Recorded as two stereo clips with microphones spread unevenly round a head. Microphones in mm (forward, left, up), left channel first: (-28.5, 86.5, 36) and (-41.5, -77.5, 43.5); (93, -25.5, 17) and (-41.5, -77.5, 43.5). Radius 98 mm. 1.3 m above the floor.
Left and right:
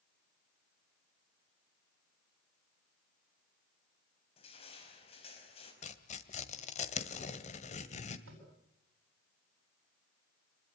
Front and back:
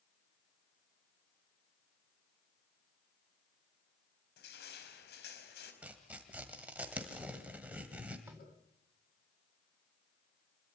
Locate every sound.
4.4 s crushing: 25° left, 4.5 m
5.8 s tearing paper: 130° left, 1.6 m
8.3 s tapping: 80° right, 8.5 m